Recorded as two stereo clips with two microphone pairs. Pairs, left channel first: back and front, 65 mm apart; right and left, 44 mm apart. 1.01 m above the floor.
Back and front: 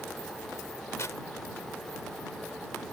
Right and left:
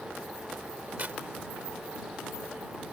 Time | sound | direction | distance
1.0 | tearing paper | 140° left | ?